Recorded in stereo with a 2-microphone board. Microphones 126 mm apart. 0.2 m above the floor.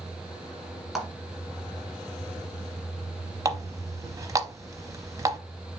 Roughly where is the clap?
Centre.